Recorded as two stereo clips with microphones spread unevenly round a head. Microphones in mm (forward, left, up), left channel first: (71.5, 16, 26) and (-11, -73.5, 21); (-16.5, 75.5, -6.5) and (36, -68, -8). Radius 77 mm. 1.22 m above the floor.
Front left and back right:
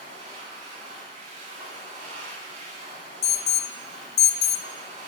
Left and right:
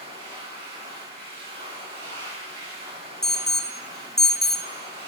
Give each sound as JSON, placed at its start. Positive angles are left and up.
{"t": 0.0, "sound": "a machine running", "azimuth_deg": -105, "distance_m": 4.5}
{"t": 3.2, "sound": "an alarm", "azimuth_deg": 25, "distance_m": 0.5}